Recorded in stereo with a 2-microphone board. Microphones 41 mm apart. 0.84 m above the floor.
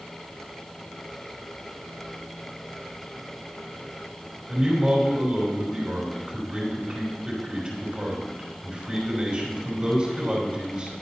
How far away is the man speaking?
About 3 m.